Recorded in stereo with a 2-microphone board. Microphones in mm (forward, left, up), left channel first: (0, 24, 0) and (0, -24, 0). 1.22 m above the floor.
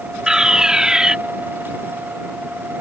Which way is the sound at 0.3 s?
15° right (ahead or behind).